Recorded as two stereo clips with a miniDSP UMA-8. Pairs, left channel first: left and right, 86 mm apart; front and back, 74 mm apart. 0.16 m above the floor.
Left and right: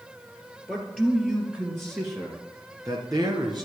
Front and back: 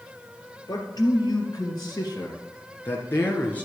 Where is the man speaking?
15° right, 2.5 m; by 3.7 s 65° right, 2 m.